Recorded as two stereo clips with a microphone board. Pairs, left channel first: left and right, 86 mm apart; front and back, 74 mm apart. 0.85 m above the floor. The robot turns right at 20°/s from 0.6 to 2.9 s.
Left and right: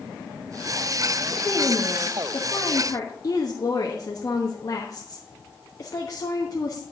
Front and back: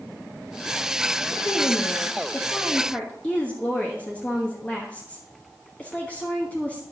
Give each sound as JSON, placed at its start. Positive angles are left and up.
{"t": 1.3, "sound": "a woman speaking", "azimuth_deg": 35, "distance_m": 1.3}